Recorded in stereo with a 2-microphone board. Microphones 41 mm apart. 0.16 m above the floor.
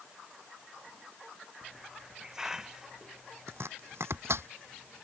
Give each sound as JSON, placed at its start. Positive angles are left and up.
{"t": 1.6, "sound": "a hiss", "side_deg": -15}
{"t": 3.5, "sound": "chopping", "side_deg": -75}